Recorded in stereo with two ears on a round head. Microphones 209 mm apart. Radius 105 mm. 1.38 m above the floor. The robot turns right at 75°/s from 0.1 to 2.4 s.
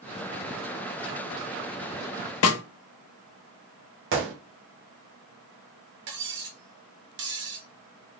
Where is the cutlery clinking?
50° right (ahead or behind), 1.2 m.